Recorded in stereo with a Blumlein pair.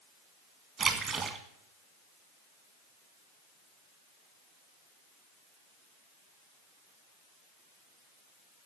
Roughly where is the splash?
Ahead.